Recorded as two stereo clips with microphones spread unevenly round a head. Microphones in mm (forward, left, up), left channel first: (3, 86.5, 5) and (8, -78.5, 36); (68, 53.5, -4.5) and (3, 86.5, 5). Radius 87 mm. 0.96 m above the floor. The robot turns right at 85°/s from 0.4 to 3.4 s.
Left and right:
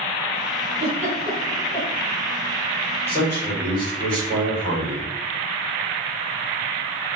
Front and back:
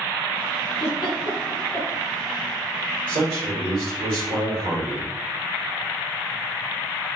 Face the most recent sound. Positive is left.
turn(degrees=175)